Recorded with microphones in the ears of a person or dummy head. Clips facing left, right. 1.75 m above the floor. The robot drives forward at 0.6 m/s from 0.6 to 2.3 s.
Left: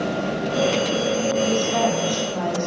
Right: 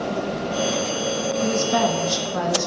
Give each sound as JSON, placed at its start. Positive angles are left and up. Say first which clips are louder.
{"t": 1.4, "sound": "a woman speaking", "louder": "even", "side_deg": -60, "distance_m": 0.9}